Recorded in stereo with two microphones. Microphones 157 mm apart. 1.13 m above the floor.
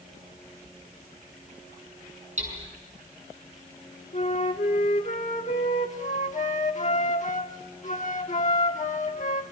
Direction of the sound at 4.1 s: 50° left (ahead or behind).